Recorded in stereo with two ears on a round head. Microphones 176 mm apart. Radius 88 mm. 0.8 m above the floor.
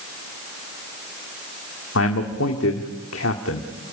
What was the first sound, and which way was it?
A man speaking, 70° left (ahead or behind).